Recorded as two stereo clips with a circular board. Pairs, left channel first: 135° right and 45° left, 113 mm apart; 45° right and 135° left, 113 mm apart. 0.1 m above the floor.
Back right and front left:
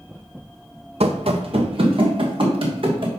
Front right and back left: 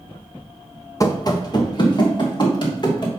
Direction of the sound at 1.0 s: 15° left.